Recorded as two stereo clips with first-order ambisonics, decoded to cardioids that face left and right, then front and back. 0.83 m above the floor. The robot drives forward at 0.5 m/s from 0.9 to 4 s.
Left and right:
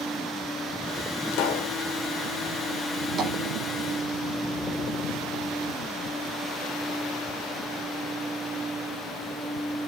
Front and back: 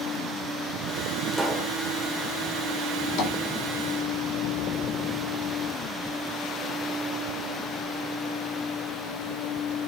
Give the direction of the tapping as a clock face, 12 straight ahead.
1 o'clock.